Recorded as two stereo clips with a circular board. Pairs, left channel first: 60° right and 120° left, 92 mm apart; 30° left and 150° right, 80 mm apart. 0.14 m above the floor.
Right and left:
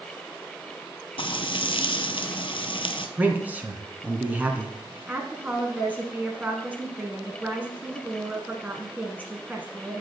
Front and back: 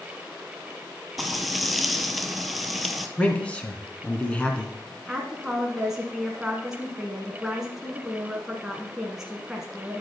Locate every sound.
1.2 s frying: 60° right, 0.8 m
3.2 s a man speaking: 80° left, 1.5 m
5.1 s a woman speaking: 135° left, 1.3 m